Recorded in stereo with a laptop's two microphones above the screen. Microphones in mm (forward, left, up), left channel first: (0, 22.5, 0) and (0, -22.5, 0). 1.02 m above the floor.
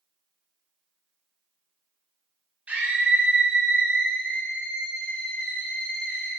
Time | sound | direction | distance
2.7 | a scream | 30° right (ahead or behind) | 3 m